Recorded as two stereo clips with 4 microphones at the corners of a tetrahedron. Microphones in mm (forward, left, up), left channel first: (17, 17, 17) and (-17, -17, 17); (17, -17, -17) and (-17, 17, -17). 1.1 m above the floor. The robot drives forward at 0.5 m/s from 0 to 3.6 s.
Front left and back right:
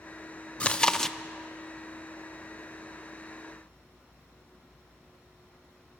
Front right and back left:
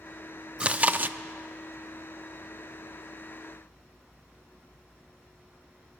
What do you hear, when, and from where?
0.6 s chewing: 85° left, 0.6 m; by 1.2 s 125° left, 0.6 m